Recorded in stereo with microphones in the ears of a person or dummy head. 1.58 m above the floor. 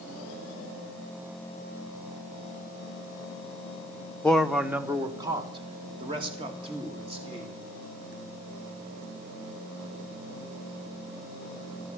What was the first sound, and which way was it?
A man speaking, centre (ahead or behind).